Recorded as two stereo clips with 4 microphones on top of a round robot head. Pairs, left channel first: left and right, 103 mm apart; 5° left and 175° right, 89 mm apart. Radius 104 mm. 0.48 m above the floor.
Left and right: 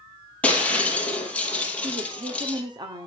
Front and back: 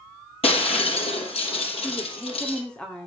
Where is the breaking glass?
10° left, 4.5 m.